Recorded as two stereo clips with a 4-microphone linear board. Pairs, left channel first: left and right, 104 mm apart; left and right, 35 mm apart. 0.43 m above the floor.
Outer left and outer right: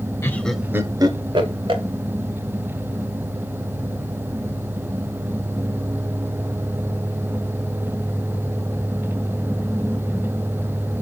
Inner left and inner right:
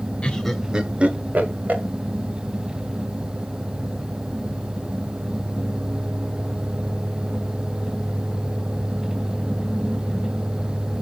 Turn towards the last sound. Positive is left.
turn(degrees=-60)  # may be behind; listen again after turning